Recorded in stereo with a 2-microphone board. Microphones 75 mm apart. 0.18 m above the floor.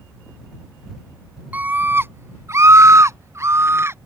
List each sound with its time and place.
1.5 s a scream: 20° right (ahead or behind); by 4.0 s 35° right (ahead or behind)